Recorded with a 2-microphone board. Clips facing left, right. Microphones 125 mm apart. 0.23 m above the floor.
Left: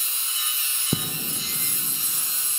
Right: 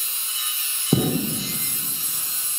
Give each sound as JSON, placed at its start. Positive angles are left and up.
{"t": 0.9, "sound": "an explosion", "side_deg": -65, "distance_m": 0.5}